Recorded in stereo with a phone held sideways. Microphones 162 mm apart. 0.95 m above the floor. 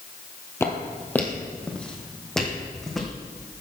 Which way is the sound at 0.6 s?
15° left (ahead or behind).